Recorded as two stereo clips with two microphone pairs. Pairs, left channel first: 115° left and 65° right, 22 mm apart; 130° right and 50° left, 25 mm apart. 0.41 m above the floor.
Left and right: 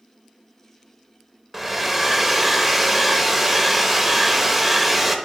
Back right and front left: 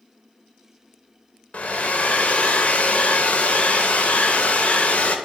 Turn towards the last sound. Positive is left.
turn(degrees=-145)